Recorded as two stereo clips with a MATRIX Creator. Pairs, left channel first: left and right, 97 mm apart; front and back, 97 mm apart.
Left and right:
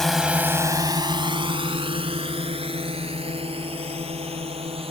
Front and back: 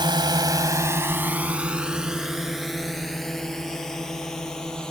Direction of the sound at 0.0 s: 175° left.